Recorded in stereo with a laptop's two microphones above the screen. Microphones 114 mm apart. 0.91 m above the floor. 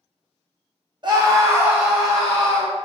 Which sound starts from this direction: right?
A scream, at 1.0 s.